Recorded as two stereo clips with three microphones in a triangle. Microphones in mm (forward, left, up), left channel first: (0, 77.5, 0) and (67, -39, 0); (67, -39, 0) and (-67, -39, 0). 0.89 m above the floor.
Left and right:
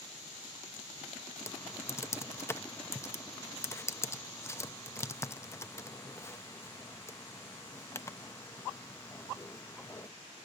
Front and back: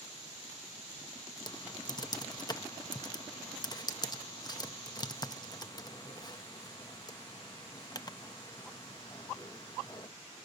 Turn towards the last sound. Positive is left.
turn(degrees=50)